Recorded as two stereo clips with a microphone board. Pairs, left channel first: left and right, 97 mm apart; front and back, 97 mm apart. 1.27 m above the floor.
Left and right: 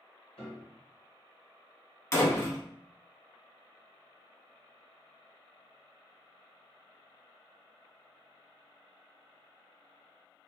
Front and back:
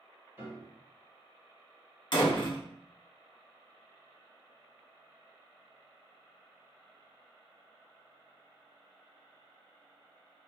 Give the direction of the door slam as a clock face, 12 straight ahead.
11 o'clock.